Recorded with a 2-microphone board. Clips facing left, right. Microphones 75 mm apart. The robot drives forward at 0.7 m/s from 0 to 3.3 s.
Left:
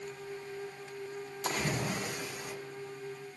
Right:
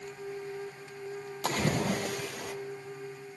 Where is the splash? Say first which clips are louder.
Right 4 dB; 55° right (ahead or behind), 2 m; by 2.5 s 75° right (ahead or behind), 1.8 m.